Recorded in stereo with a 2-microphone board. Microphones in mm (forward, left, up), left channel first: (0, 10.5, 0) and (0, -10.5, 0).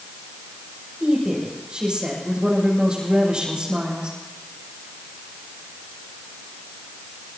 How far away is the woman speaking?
About 8 m.